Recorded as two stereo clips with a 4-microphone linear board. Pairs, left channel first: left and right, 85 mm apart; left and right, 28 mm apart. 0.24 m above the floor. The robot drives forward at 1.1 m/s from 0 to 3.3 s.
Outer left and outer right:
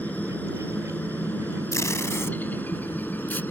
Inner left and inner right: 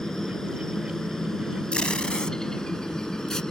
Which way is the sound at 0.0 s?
20° left (ahead or behind).